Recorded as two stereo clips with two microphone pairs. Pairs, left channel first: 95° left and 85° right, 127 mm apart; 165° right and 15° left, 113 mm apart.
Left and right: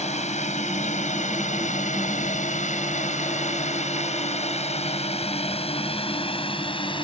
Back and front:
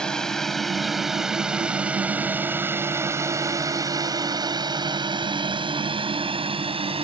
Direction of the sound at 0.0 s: 115° left.